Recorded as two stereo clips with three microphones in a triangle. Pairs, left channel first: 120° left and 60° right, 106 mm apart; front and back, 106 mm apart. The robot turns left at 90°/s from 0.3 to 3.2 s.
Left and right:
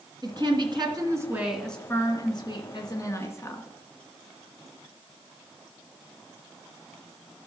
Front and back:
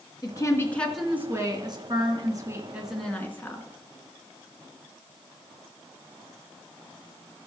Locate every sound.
0.2 s a woman speaking: 30° right, 2 m; by 3.7 s 65° left, 2 m